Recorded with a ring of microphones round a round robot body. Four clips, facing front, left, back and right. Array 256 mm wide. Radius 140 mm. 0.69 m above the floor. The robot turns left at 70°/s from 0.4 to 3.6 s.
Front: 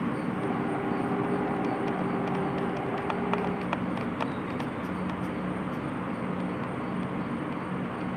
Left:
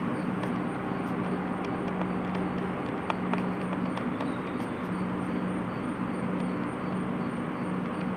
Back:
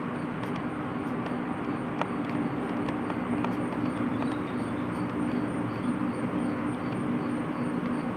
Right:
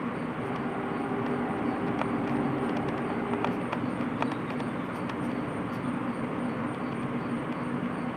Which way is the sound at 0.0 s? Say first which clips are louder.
Left 2 dB, front 3 dB; 45° left.